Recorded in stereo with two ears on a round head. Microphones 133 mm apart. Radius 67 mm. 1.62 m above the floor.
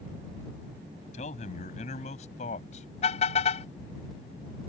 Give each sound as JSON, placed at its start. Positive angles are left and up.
{"t": 1.1, "sound": "a man speaking", "side_deg": 50}
{"t": 3.0, "sound": "a car horn", "side_deg": 45}